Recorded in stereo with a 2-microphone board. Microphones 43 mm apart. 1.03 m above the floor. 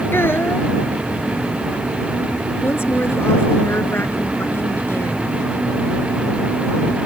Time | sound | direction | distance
0.1 | a child speaking | 65° left (ahead or behind) | ?
2.6 | a woman speaking | 80° left | ?